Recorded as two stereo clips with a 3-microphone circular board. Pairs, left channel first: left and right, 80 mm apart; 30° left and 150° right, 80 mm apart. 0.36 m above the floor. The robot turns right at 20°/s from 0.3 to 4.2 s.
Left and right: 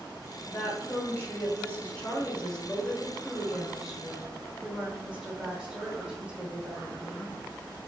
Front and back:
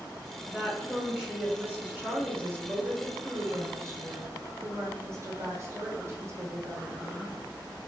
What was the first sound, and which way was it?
A woman speaking, 125° left.